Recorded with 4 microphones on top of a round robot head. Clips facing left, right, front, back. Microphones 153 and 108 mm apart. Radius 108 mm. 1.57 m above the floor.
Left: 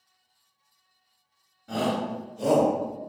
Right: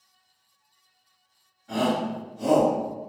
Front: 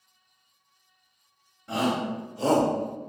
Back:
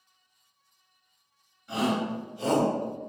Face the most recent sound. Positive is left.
turn(degrees=70)